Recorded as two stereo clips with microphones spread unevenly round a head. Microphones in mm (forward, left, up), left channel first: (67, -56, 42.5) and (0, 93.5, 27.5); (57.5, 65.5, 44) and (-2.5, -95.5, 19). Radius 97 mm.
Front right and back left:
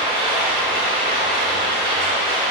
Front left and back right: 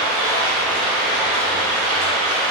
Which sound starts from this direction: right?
Running water, at 0.0 s.